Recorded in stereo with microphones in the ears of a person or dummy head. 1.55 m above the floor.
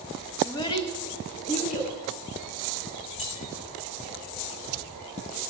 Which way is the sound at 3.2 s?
35° left (ahead or behind).